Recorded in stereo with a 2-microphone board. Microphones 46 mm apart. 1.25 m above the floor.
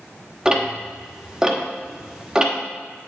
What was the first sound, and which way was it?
Ticking, 15° right (ahead or behind).